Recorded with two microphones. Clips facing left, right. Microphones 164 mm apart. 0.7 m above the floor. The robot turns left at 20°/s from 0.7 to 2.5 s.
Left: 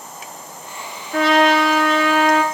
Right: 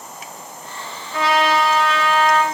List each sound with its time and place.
1.1 s a trumpet: 65° left (ahead or behind), 1.7 m; by 2.4 s 40° left (ahead or behind), 1.7 m